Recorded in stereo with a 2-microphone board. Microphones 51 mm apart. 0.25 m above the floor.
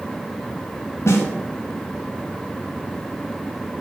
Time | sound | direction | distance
1.1 | a snare drum | 60° left (ahead or behind) | 1.7 m